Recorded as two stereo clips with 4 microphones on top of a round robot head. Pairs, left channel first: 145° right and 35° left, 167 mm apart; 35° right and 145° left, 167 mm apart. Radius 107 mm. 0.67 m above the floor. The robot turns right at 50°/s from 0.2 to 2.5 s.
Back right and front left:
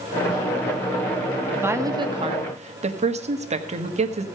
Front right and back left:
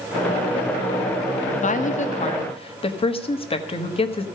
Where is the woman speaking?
45° right, 1.4 m; by 4.3 s 5° left, 1.4 m.